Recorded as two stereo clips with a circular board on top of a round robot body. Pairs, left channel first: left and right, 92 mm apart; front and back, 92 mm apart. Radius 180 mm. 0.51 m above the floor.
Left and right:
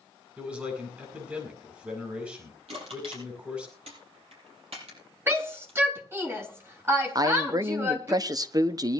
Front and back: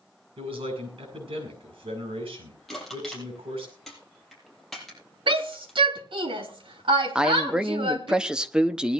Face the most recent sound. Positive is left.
turn(degrees=-105)